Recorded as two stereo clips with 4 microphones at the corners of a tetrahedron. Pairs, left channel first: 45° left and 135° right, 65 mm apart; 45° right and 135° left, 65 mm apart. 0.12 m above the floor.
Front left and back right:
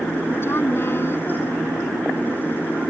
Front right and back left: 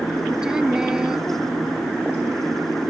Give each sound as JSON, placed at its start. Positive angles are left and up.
{"t": 0.4, "sound": "a woman speaking", "azimuth_deg": 60}